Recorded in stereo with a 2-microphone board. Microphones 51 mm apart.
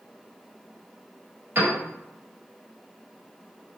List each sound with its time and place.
1.6 s a piano: 35° right (ahead or behind), 1.6 m